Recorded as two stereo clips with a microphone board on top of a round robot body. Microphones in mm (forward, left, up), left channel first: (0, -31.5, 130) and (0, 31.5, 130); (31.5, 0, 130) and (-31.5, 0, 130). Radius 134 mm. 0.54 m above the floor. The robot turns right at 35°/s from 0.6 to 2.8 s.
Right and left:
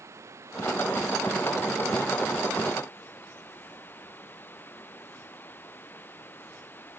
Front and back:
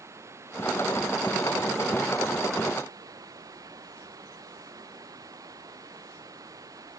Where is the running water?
135° left; by 7.0 s 150° right.